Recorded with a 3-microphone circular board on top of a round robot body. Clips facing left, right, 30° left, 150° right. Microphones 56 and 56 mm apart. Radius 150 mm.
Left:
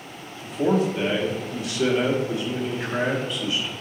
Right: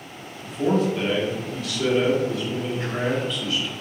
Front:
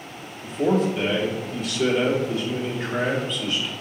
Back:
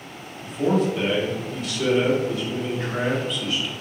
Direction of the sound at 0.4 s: 125° left.